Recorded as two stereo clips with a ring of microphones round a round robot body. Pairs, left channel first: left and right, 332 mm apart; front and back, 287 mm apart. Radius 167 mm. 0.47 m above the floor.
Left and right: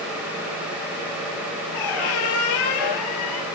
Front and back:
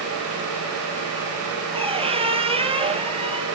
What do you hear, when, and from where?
1.7 s a squeak: 110° left, 1.2 m